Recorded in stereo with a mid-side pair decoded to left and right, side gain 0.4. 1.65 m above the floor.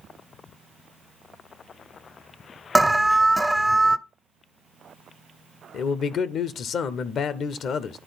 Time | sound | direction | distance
2.8 | an alarm | 10° right | 0.6 m
5.7 | a man speaking | 65° left | 0.7 m